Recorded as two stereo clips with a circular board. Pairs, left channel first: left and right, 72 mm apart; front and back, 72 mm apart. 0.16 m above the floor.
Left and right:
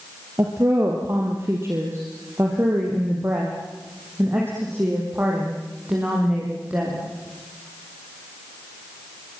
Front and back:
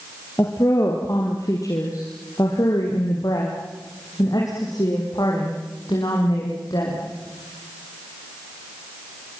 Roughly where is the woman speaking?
Ahead right.